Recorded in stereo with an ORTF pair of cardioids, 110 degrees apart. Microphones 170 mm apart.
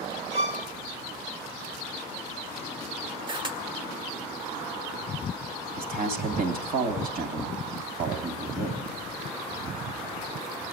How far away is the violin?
About 2.5 m.